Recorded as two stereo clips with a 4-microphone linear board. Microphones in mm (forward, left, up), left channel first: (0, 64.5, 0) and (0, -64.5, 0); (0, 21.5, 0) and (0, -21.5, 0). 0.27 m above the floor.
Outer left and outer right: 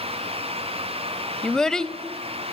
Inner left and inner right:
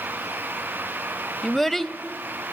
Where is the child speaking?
5° left (ahead or behind), 0.6 m.